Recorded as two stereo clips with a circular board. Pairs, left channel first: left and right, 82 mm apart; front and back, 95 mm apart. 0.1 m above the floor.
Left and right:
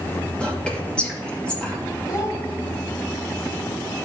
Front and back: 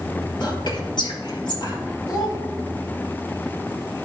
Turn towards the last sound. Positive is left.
turn(degrees=45)